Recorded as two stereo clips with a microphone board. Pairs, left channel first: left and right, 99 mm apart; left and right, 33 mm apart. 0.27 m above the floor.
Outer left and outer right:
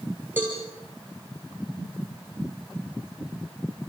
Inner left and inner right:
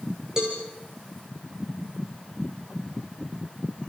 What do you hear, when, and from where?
0.4 s a cowbell: 20° right (ahead or behind), 5.5 m